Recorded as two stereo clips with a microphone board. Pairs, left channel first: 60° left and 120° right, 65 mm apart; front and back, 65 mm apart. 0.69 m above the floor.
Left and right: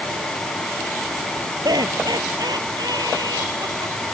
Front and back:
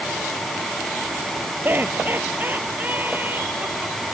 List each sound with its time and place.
1.6 s laughter: 120° right; by 4.0 s 115° right